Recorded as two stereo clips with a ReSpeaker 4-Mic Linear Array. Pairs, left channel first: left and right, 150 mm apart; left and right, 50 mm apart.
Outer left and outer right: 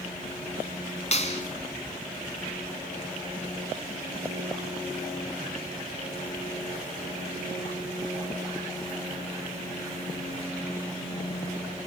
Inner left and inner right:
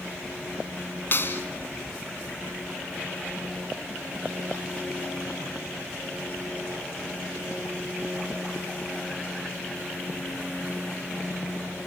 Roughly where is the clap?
Left.